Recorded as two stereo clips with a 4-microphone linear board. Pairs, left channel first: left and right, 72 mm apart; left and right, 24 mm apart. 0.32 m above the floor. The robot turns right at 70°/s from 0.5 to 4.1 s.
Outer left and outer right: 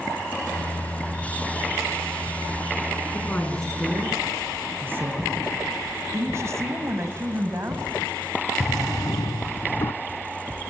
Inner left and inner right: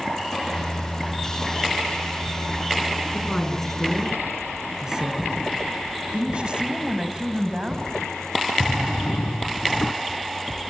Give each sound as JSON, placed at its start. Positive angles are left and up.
{"t": 3.1, "sound": "a woman speaking", "side_deg": 35, "distance_m": 4.5}
{"t": 6.1, "sound": "a woman speaking", "side_deg": -40, "distance_m": 2.0}
{"t": 8.6, "sound": "a drawer", "side_deg": 75, "distance_m": 0.8}